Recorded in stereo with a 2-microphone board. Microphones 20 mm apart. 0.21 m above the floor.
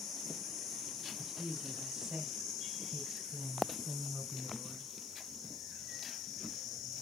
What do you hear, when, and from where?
1.2 s a woman speaking: 30° right (ahead or behind), 1.4 m; by 4.9 s 10° right (ahead or behind), 2.0 m